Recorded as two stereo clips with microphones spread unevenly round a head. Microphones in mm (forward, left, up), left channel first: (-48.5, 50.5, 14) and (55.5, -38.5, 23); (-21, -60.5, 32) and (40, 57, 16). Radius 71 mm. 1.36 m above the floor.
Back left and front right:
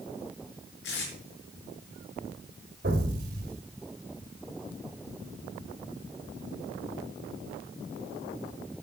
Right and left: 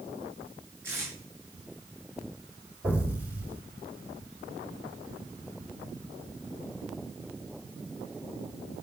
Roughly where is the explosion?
Ahead.